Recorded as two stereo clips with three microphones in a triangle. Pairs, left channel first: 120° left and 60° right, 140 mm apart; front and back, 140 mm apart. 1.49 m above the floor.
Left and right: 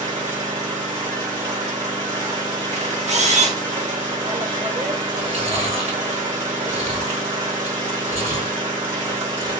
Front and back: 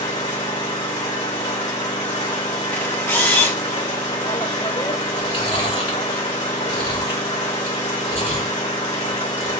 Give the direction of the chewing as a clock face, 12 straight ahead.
1 o'clock.